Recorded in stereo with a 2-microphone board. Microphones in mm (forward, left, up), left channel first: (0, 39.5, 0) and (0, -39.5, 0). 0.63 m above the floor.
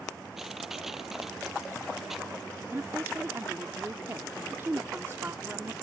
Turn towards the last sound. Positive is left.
turn(degrees=-35)  # may be behind; listen again after turning